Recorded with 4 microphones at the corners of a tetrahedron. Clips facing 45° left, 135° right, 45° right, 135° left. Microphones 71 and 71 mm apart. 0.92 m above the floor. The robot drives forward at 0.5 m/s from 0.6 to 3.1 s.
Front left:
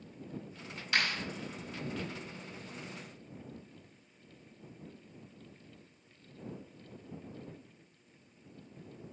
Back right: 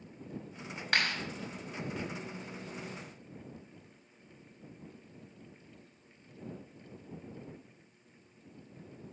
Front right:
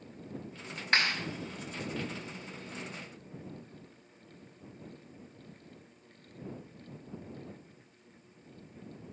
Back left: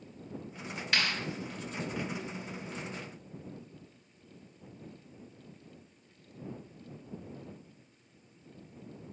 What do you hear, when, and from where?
0.9 s a clap: 95° right, 5 m